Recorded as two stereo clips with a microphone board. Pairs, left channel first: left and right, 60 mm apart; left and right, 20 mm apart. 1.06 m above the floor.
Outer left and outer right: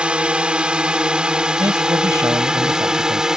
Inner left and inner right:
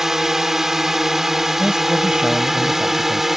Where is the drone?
15° right (ahead or behind); by 3.4 s 10° right (ahead or behind).